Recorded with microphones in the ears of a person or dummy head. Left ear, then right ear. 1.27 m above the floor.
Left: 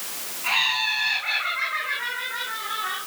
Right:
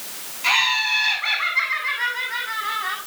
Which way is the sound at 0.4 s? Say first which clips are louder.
Right 4 dB; 65° right (ahead or behind).